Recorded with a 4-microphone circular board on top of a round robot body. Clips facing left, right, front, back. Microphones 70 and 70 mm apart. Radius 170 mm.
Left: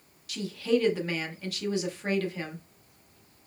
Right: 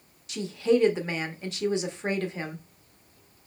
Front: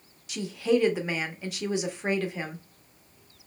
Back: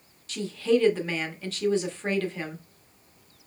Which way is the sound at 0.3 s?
60° right.